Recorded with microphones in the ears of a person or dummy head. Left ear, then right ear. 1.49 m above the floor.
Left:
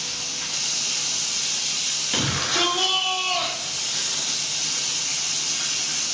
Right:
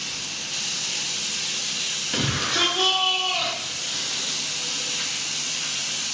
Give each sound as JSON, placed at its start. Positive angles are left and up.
{"t": 0.0, "sound": "running water", "side_deg": 60, "distance_m": 1.0}
{"t": 2.1, "sound": "a shout", "side_deg": 15, "distance_m": 0.7}